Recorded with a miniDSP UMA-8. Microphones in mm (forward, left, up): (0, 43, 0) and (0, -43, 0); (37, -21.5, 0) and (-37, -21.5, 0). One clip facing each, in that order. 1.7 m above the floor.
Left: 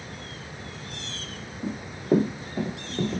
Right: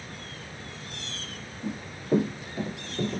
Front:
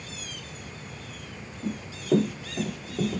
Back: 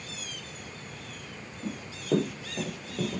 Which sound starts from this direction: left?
Running footsteps, at 1.6 s.